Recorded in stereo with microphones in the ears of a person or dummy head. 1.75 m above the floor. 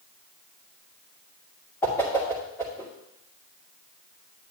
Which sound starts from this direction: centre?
A whoosh, at 1.8 s.